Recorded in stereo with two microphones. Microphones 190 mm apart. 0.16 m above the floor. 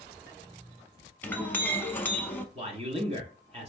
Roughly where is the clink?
Centre.